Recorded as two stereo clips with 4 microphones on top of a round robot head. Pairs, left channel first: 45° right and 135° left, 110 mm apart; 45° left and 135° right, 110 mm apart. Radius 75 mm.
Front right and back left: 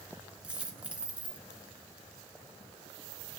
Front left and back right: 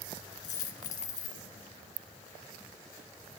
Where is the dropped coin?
55° left, 2 m.